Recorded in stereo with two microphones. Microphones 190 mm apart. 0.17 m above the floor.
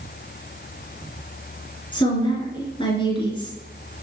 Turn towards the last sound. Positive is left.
turn(degrees=25)  # may be behind; listen again after turning